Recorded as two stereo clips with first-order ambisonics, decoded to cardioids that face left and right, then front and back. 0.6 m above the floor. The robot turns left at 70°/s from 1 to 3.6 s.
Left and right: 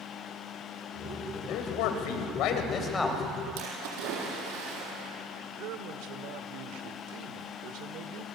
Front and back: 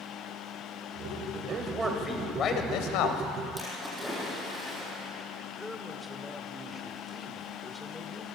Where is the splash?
90° right, 6.5 m.